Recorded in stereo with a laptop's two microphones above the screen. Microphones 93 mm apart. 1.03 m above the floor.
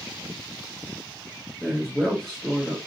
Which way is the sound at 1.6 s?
Centre (ahead or behind).